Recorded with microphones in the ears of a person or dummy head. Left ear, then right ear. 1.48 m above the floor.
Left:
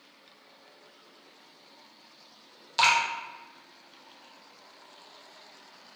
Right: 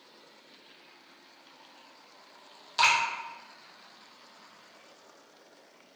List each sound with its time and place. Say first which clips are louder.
2.8 s dripping: left 1 dB; 10° left (ahead or behind), 0.8 m